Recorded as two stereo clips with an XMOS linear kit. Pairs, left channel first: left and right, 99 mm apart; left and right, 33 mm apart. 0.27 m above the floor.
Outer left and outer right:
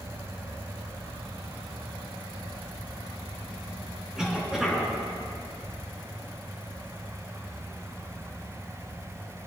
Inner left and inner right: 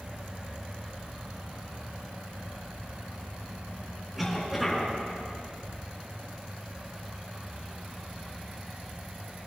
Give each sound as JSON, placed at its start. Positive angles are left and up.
{"t": 4.2, "sound": "a cough", "side_deg": -5, "distance_m": 3.5}